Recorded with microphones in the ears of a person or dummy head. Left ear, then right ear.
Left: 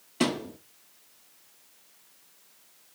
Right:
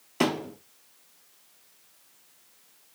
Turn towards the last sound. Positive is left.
turn(degrees=-40)  # may be behind; listen again after turning